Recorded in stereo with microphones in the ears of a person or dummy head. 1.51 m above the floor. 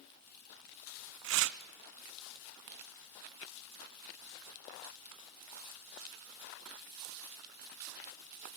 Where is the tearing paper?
70° right (ahead or behind), 0.6 m.